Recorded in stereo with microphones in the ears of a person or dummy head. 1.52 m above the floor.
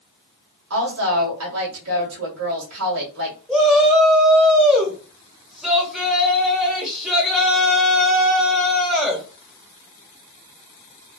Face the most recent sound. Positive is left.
turn(degrees=0)  # may be behind; listen again after turning